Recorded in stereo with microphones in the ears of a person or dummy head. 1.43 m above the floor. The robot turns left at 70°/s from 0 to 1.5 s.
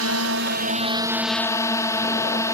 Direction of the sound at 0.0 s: 80° right.